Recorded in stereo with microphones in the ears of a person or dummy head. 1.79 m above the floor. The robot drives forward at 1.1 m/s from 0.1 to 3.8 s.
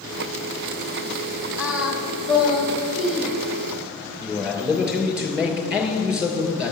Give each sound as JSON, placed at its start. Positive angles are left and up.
{"t": 1.6, "sound": "singing", "side_deg": -5, "distance_m": 0.8}
{"t": 4.2, "sound": "a man speaking", "side_deg": -5, "distance_m": 2.5}